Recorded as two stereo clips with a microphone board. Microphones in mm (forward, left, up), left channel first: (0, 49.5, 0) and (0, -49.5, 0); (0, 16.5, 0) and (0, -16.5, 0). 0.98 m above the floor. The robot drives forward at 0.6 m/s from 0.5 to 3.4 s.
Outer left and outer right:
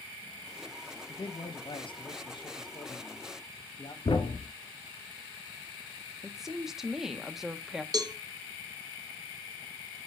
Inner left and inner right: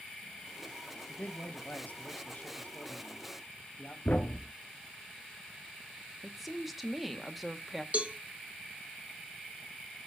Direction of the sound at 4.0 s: 60° left (ahead or behind).